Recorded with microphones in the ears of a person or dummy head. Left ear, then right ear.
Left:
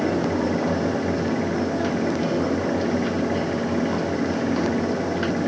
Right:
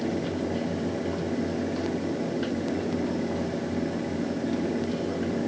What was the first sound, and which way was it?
Only background noise.